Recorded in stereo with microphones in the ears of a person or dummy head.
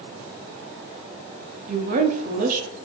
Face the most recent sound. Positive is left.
turn(degrees=-50)  # may be behind; listen again after turning